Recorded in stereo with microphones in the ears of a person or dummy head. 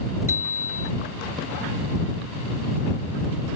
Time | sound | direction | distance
0.3 | a bicycle bell | 15° right (ahead or behind) | ?